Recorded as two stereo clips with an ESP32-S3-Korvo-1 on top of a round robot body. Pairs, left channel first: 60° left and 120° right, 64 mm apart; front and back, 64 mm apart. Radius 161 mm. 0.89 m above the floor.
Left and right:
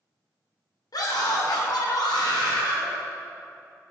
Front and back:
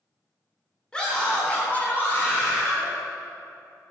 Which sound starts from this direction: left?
A scream, at 0.9 s.